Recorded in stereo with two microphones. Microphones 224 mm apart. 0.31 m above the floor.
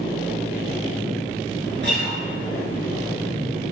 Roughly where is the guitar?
Right.